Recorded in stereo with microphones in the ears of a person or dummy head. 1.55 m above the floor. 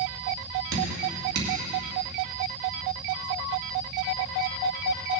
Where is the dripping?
60° right (ahead or behind), 2.5 m.